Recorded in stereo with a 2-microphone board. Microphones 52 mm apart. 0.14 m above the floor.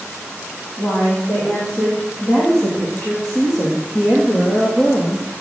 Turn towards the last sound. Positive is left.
turn(degrees=60)  # may be behind; listen again after turning